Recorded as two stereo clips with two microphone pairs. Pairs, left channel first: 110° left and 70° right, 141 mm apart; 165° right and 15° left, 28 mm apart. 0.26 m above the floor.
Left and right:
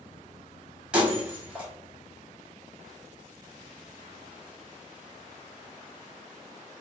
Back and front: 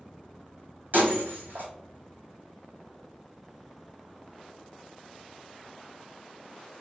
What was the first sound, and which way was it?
Breaking glass, 15° left.